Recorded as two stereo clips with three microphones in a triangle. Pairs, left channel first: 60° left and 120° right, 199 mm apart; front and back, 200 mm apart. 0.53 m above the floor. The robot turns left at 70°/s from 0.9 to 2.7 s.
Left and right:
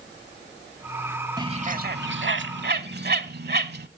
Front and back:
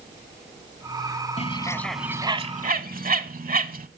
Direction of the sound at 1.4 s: 50° right.